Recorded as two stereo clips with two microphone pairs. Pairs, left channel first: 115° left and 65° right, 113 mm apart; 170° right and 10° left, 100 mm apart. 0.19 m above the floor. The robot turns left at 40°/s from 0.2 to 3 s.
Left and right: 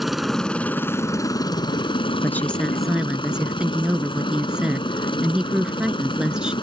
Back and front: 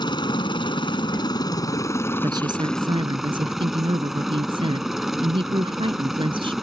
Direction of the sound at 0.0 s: 155° right.